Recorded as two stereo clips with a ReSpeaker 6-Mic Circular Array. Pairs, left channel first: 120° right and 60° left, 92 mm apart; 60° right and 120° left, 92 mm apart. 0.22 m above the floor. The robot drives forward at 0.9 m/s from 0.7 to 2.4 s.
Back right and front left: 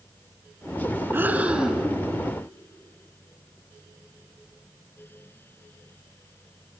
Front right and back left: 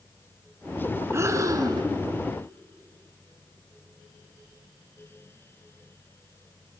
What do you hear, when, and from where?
1.1 s breathing: 100° left, 1.1 m; by 1.9 s 145° left, 1.3 m